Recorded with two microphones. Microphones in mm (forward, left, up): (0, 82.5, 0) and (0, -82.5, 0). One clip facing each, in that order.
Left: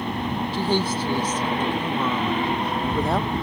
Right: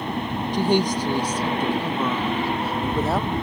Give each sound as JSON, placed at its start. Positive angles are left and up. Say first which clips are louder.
{"t": 0.5, "sound": "a woman speaking", "louder": "right 4 dB", "side_deg": -15}